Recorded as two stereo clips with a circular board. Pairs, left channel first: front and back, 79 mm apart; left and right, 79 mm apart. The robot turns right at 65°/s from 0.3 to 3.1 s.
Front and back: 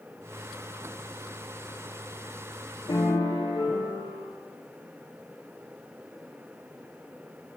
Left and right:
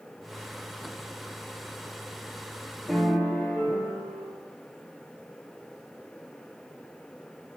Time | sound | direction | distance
2.9 | a piano | 5° left | 2 m